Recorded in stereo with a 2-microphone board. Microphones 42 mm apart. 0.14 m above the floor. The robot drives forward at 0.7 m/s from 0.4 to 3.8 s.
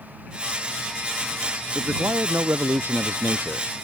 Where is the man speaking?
75° right (ahead or behind); by 3.7 s 70° right (ahead or behind).